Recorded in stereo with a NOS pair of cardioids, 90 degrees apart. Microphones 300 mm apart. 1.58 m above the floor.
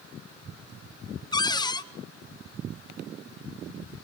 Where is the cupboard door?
15° left, 0.7 m.